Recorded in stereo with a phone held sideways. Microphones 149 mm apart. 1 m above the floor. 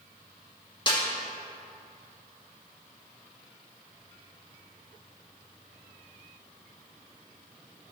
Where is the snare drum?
30° left (ahead or behind), 1.5 m.